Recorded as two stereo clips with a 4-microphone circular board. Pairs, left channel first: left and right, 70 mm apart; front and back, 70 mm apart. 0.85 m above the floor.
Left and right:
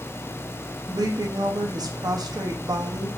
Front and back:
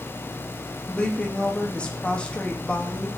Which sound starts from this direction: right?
A woman speaking, at 0.9 s.